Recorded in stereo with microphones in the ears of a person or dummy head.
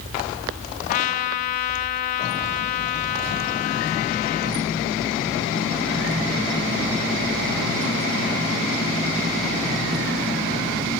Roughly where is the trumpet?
Left.